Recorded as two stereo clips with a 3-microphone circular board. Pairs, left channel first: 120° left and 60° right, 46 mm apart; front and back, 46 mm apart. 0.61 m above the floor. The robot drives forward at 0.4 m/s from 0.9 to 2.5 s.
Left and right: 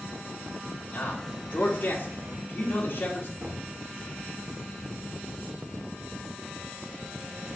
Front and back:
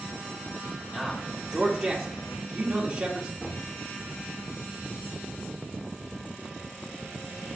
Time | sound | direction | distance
0.9 | a man speaking | 80° left | 1.5 m
3.4 | knocking | 85° right | 1.1 m